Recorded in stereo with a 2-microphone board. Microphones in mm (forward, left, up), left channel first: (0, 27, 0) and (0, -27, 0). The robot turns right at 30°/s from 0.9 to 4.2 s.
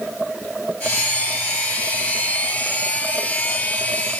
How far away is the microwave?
I don't hear a microwave.